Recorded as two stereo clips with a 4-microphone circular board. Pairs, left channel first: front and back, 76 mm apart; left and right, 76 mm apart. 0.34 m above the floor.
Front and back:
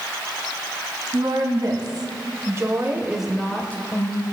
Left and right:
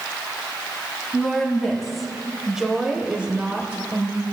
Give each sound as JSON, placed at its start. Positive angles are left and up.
{"t": 1.1, "sound": "a woman speaking", "azimuth_deg": 180, "distance_m": 2.5}